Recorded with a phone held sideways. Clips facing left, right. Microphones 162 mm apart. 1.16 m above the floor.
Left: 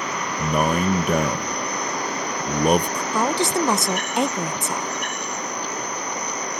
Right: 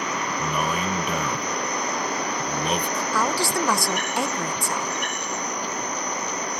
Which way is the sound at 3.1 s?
20° left (ahead or behind).